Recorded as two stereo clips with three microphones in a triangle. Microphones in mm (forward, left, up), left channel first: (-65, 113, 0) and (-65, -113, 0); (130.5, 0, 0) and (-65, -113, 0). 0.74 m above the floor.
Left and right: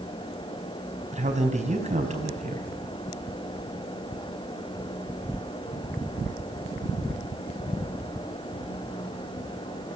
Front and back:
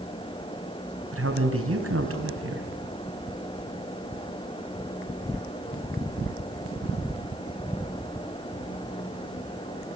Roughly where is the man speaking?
Behind right.